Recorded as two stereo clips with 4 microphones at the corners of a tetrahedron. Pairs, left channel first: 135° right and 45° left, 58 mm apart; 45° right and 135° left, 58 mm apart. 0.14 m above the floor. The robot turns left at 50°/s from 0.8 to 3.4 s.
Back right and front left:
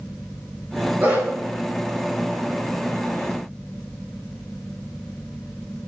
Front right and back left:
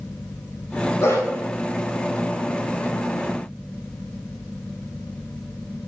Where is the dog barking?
15° right, 6.5 m; by 1.2 s 25° right, 6.5 m.